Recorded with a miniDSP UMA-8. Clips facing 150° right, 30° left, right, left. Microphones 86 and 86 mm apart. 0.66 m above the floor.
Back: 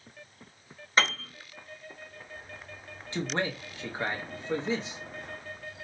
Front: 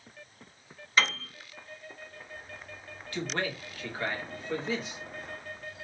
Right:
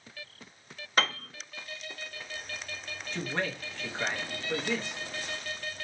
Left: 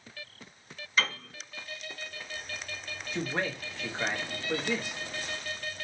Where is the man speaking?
165° left, 0.7 m.